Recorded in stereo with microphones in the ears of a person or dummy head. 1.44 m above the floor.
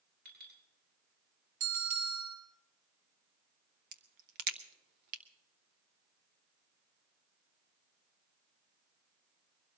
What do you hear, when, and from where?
0.2 s a clink: 55° right (ahead or behind), 7.5 m
1.6 s a bell: 70° right (ahead or behind), 5 m
3.9 s a crack: 50° right (ahead or behind), 0.6 m